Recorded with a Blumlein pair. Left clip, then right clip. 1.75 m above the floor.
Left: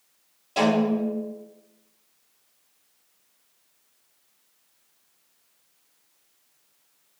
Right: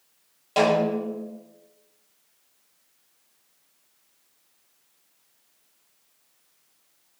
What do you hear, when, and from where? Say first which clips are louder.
0.6 s a snare drum: right 2 dB; 70° right, 1.6 m